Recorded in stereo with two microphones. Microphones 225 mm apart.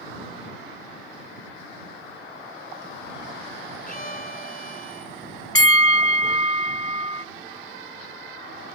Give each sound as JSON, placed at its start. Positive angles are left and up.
{"t": 3.9, "sound": "a violin", "side_deg": 40}
{"t": 5.5, "sound": "a bell", "side_deg": 75}